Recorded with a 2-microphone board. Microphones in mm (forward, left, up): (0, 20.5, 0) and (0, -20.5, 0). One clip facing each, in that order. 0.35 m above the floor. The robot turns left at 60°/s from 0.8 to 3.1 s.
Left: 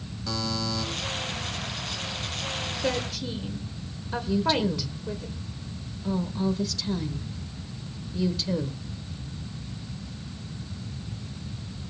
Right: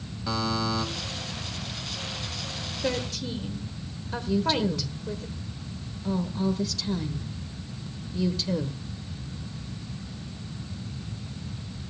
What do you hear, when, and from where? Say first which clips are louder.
0.3 s a buzzer: right 3 dB; 20° right (ahead or behind), 2 m; by 0.8 s 15° right (ahead or behind), 2 m
2.8 s a woman speaking: right 1 dB; centre (ahead or behind), 1.4 m; by 5.3 s 5° left (ahead or behind), 1.4 m
4.3 s a woman speaking: even; centre (ahead or behind), 1.0 m